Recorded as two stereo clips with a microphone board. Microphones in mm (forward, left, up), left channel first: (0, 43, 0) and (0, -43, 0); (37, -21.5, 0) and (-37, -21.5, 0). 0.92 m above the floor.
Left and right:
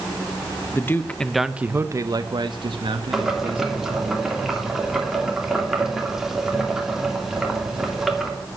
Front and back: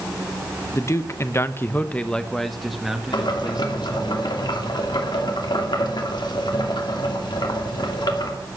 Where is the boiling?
5° right, 2.5 m.